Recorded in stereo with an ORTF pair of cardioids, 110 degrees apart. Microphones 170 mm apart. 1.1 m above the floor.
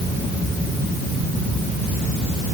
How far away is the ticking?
I don't hear ticking.